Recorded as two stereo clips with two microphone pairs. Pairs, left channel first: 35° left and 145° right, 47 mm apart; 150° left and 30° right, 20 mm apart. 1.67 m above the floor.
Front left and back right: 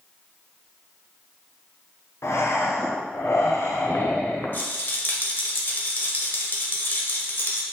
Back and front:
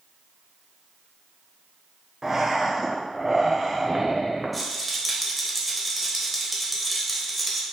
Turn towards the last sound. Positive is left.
turn(degrees=60)